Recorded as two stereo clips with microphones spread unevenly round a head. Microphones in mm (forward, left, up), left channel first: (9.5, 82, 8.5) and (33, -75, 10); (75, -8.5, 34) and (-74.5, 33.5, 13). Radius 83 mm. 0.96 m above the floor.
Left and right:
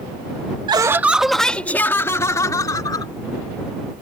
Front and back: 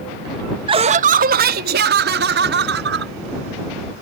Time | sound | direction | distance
0.7 | laughter | 145° right | ?